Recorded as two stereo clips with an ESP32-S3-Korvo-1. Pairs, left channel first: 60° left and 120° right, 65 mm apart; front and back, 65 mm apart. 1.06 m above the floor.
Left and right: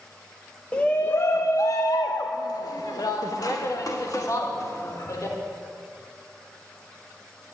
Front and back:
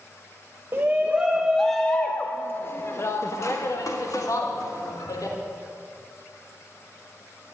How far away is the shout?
About 0.8 m.